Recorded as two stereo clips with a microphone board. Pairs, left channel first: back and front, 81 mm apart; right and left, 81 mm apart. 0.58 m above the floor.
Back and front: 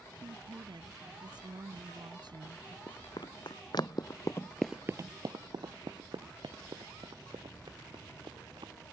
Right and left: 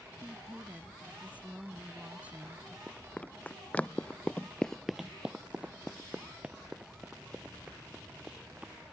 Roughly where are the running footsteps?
Behind.